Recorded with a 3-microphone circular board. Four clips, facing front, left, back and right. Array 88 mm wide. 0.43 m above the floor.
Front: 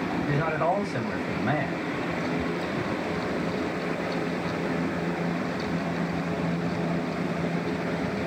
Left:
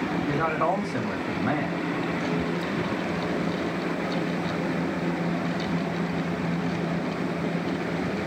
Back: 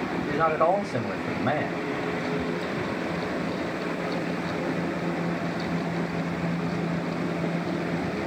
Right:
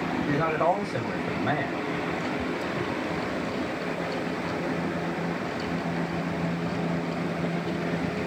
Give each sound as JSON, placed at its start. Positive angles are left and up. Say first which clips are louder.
{"t": 0.3, "sound": "a man speaking", "louder": "right 1 dB, back 5 dB", "azimuth_deg": -160, "distance_m": 1.9}